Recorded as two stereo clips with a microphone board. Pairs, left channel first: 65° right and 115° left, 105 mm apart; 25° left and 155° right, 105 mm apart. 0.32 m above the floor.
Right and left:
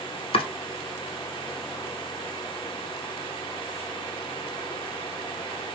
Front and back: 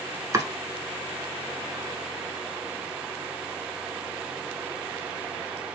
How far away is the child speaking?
I don't hear a child speaking.